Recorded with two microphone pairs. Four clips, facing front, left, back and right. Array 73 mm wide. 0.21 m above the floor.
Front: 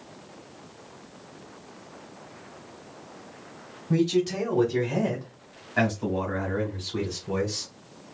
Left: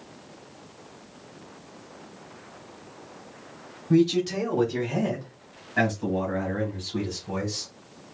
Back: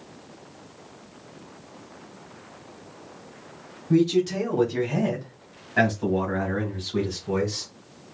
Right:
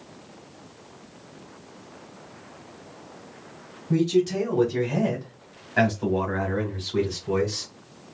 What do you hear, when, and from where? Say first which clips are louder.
3.9 s a man speaking: even, back 3 dB; 70° left, 1.5 m; by 7.7 s 105° right, 2 m